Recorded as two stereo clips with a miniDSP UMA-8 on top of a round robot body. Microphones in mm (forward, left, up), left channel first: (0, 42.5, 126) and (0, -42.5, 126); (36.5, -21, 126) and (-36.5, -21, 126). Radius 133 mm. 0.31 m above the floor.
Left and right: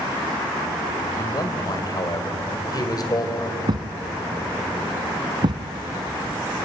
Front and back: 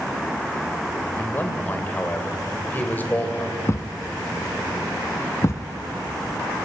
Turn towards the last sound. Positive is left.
turn(degrees=-55)